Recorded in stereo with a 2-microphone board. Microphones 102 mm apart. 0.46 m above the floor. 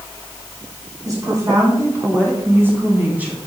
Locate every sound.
1.1 s a woman speaking: 35° right (ahead or behind), 3.5 m; by 3.4 s 15° right (ahead or behind), 3 m